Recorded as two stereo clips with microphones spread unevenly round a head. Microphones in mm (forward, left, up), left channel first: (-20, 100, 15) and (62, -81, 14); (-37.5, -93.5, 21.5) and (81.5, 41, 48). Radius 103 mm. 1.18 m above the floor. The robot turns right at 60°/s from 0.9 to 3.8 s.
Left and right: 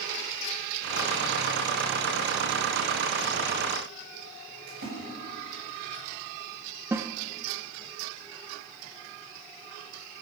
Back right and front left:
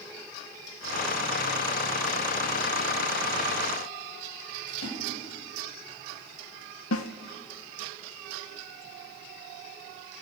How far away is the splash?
About 8 m.